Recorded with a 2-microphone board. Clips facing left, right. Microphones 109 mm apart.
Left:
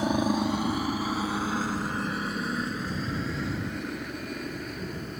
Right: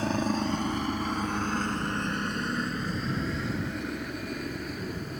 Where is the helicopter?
15° left (ahead or behind); by 5.2 s centre (ahead or behind).